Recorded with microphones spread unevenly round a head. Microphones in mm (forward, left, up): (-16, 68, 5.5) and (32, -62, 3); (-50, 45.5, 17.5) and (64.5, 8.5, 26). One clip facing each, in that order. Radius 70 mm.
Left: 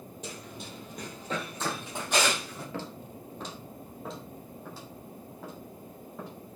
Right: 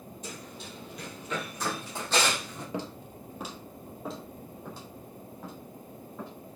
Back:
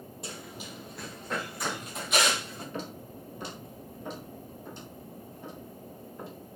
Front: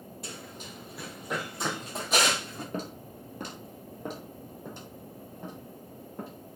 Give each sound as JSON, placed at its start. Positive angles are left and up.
{"t": 0.2, "sound": "running footsteps", "azimuth_deg": 95, "distance_m": 2.5}
{"t": 2.7, "sound": "footsteps", "azimuth_deg": -5, "distance_m": 1.7}